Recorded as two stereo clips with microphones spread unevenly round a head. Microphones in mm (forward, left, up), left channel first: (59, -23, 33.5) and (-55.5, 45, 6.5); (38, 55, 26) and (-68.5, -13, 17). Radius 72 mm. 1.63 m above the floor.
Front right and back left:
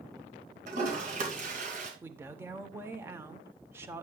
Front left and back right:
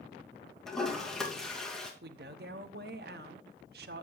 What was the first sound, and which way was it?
A toilet flushing, 120° left.